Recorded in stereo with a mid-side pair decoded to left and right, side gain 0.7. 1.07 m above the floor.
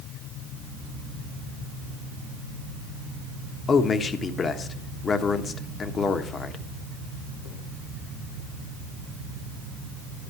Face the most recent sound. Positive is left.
turn(degrees=30)